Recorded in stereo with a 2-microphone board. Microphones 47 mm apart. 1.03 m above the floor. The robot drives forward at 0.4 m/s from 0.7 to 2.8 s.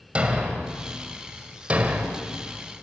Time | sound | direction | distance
0.1 | a thud | 25° right (ahead or behind) | 2 m